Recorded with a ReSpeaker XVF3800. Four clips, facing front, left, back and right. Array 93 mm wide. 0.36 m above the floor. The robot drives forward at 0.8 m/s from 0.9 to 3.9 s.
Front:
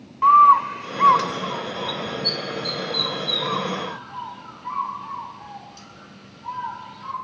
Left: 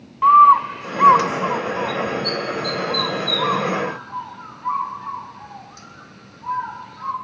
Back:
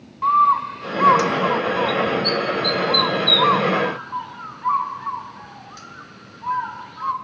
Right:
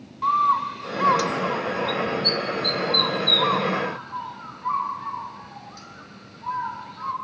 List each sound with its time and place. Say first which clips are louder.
0.2 s a bird: left 10 dB, front 4 dB; 65° left, 0.5 m; by 7.1 s 175° left, 2.5 m